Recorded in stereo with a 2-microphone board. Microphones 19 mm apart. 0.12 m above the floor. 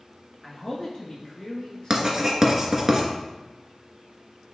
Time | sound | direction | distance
0.4 | a man speaking | 25° left (ahead or behind) | 1.2 m
1.9 | writing | 30° right (ahead or behind) | 0.9 m